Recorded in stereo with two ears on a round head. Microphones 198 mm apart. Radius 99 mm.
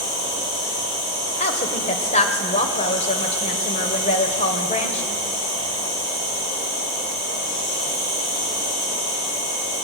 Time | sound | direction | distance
0.0 | an insect | 80° left | 8.5 m
1.4 | a woman speaking | 30° left (ahead or behind) | 2 m